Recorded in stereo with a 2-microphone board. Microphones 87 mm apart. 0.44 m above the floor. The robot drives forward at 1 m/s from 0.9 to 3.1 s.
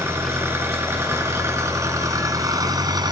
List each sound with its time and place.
0.0 s an engine running: 30° right (ahead or behind), 4.5 m; by 3.1 s 50° right (ahead or behind), 2.5 m